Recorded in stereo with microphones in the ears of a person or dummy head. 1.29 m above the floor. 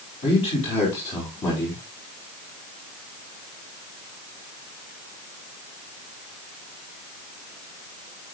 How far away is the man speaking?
About 4 m.